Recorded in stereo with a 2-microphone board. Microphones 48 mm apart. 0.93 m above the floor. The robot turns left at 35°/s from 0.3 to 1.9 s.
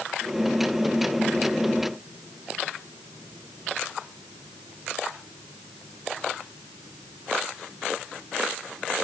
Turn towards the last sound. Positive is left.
No sound to turn to.